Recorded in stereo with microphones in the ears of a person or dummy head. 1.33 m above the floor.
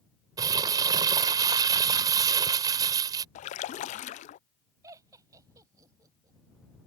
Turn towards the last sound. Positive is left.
turn(degrees=-20)  # may be behind; listen again after turning